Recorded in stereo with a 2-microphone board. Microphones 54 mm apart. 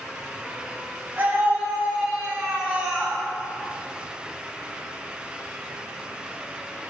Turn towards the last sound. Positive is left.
turn(degrees=-10)  # may be behind; listen again after turning